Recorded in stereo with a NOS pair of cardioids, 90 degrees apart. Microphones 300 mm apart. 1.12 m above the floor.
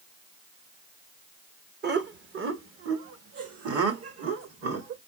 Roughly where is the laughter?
Ahead right.